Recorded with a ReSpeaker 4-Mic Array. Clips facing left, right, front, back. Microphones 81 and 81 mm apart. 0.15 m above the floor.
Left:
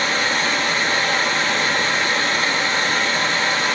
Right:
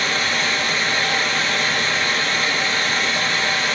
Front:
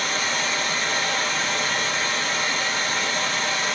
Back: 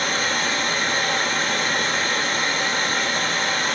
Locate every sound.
0.0 s running water: 150° left, 0.8 m